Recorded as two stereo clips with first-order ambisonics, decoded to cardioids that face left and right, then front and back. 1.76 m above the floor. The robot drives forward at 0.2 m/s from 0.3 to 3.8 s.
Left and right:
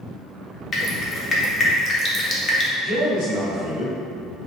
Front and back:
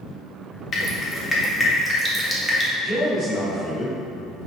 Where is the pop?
I don't hear a pop.